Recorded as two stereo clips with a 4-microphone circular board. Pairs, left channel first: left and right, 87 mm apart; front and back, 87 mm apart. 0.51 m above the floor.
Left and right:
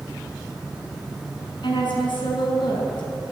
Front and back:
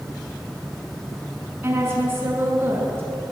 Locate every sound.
1.6 s a woman speaking: 115° left, 6.5 m